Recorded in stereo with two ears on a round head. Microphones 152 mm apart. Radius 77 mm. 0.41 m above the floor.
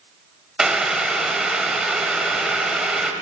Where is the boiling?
5° right (ahead or behind), 0.6 m.